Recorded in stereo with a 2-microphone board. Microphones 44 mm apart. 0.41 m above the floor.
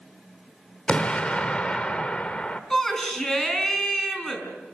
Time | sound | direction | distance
0.9 | an explosion | 25° left (ahead or behind) | 1.3 m
2.7 | a shout | 10° left (ahead or behind) | 4.5 m